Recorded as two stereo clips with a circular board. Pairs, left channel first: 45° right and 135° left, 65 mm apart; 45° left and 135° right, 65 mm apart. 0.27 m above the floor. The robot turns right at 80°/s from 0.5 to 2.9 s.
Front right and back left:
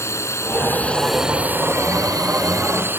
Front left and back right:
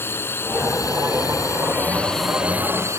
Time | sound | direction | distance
0.0 | a drone | 5° right | ?